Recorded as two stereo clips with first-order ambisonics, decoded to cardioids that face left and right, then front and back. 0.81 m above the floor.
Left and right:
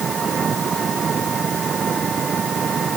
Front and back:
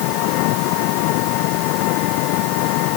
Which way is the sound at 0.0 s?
20° right.